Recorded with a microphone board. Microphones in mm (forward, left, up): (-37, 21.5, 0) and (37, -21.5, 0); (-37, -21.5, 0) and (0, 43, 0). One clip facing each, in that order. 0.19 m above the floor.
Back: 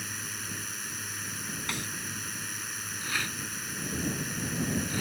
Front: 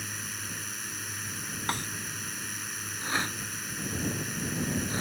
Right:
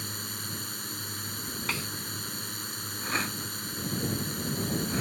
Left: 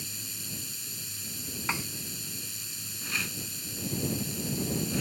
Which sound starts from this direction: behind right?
A drone, at 0.0 s.